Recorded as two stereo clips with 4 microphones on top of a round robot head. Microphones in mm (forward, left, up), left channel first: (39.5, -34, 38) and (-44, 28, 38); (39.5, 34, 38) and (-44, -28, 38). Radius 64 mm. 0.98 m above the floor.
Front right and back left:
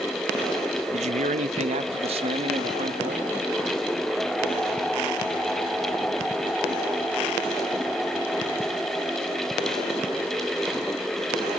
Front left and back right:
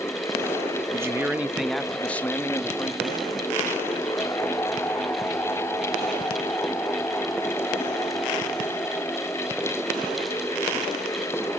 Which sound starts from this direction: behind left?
A man speaking, at 0.9 s.